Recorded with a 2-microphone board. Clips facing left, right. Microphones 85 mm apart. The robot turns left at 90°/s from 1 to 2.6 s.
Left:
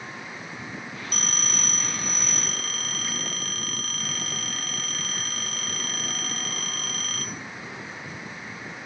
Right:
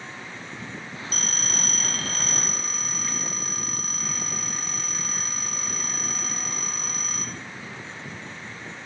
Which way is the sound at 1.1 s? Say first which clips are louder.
Left 1 dB; 110° left.